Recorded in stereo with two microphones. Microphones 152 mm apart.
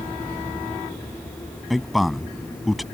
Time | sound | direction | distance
1.7 | a man speaking | centre (ahead or behind) | ?